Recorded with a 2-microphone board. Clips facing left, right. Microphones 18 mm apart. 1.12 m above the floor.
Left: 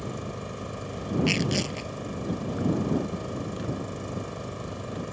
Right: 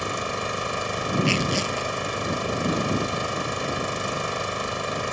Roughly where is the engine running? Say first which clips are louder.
Right 8 dB; right.